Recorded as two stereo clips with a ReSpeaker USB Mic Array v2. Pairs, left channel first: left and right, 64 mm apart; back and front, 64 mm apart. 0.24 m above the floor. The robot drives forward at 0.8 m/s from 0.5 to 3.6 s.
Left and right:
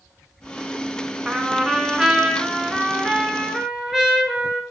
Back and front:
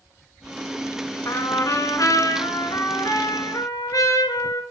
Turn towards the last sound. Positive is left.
turn(degrees=-170)